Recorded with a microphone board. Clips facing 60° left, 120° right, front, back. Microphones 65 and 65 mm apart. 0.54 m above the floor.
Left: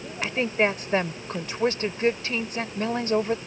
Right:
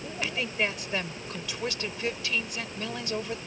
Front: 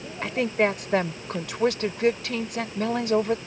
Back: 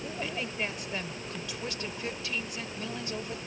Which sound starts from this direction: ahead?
A woman speaking, at 0.2 s.